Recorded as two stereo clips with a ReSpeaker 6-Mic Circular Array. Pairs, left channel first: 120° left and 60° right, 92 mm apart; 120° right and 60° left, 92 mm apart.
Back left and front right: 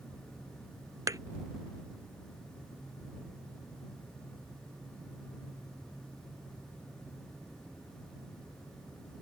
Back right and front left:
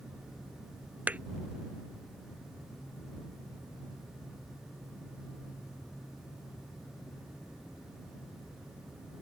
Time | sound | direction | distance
1.1 | a thud | 10° right | ?